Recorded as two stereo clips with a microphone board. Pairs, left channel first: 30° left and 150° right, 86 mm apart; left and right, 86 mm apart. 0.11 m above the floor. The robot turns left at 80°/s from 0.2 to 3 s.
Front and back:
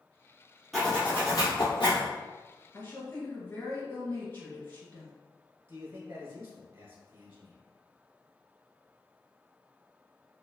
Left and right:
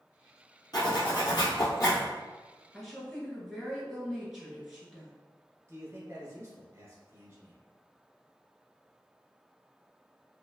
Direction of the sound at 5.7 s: 115° right.